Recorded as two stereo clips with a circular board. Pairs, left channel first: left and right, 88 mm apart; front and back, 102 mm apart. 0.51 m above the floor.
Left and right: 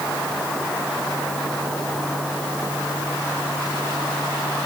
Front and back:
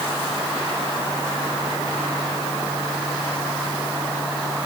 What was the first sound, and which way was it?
Only background noise.